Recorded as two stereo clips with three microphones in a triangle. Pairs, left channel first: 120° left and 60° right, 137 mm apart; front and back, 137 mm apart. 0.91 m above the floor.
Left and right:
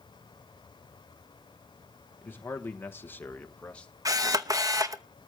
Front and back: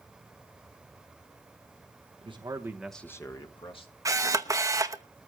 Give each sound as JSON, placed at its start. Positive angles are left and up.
{"t": 2.2, "sound": "a man speaking", "azimuth_deg": -175, "distance_m": 1.1}
{"t": 4.0, "sound": "a camera shutter", "azimuth_deg": -120, "distance_m": 0.8}